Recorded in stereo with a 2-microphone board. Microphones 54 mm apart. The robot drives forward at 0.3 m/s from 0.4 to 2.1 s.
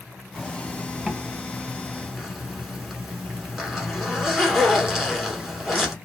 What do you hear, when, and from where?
0.3 s a zipper: 5° right (ahead or behind), 0.6 m